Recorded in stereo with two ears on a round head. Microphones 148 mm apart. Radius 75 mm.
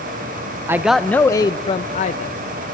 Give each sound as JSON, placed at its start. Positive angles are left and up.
{"t": 0.7, "sound": "a man speaking", "side_deg": -15, "distance_m": 0.5}